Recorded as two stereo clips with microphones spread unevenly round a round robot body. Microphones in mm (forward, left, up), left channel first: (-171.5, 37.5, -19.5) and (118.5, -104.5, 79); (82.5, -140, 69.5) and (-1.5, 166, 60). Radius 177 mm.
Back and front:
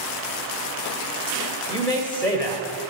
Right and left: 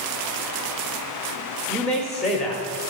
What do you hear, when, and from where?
1.7 s a man speaking: 165° right, 1.0 m